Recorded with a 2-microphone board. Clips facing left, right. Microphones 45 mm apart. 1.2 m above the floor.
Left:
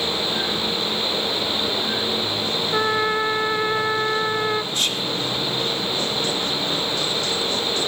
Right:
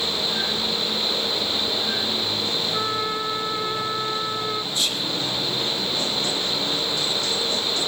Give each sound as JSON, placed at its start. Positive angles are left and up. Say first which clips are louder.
{"t": 2.7, "sound": "a trumpet", "louder": "left 9 dB", "side_deg": 75, "distance_m": 0.8}
{"t": 4.7, "sound": "whispering", "louder": "left 2 dB", "side_deg": 60, "distance_m": 2.5}